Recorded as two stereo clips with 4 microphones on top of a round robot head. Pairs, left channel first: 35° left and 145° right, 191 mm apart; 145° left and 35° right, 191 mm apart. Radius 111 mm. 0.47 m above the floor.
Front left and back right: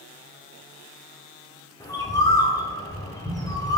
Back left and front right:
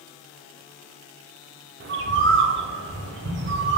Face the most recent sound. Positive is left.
turn(degrees=-40)